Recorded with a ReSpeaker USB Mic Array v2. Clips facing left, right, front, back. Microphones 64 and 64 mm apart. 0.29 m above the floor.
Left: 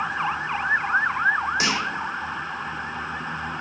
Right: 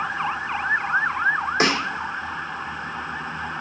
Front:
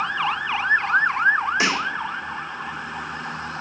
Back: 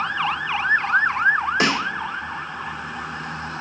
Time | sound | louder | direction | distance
1.6 | a snare drum | right 3 dB, back 1 dB | 140° right | 2.0 m